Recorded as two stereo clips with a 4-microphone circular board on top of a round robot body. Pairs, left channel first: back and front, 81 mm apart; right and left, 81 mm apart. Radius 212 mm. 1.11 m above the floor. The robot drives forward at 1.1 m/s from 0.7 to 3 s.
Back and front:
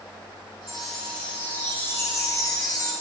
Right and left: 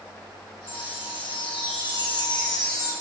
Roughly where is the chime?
Right.